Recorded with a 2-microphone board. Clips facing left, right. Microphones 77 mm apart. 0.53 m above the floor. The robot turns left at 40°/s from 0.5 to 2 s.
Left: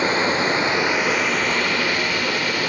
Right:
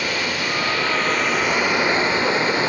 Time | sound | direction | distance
0.0 | running water | 30° left | 0.8 m